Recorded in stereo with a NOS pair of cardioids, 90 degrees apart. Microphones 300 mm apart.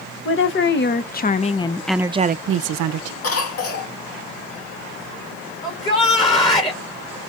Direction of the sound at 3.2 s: 50° left.